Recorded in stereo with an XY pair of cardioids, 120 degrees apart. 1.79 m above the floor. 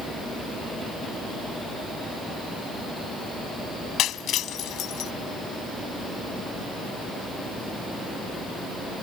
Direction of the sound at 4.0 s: 65° left.